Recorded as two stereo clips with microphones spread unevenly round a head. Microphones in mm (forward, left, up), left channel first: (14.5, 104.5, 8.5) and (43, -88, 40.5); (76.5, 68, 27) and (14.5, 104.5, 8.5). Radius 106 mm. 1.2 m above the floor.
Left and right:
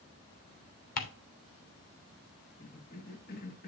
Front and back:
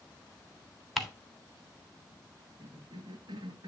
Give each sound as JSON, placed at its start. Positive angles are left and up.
{"t": 1.0, "sound": "ticking", "azimuth_deg": 55, "distance_m": 1.8}
{"t": 2.6, "sound": "a cough", "azimuth_deg": 145, "distance_m": 1.6}